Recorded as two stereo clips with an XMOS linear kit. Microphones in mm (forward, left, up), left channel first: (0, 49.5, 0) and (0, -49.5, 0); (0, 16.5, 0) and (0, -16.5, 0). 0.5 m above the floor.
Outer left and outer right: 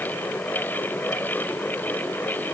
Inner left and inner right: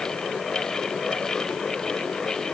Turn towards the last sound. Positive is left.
No sound to turn to.